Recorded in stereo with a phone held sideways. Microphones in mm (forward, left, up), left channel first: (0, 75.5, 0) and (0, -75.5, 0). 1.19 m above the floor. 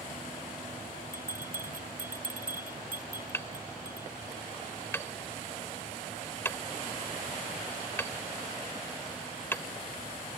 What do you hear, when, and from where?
1.1 s a bell: 70° right (ahead or behind)
3.3 s hammering: 15° left (ahead or behind)